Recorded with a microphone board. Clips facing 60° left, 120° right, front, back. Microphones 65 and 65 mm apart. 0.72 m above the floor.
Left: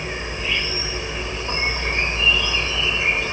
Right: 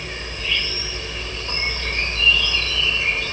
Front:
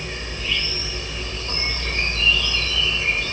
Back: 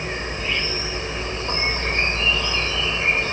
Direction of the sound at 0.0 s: 130° left.